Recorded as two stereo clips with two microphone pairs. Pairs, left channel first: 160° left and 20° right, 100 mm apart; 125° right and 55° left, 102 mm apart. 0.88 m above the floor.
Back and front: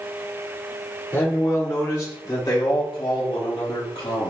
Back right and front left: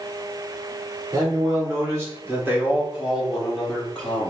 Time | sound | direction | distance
1.1 | a man speaking | 100° left | 2.5 m